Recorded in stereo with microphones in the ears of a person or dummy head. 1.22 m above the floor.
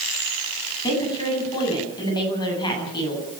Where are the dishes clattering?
No dishes clattering in this recording.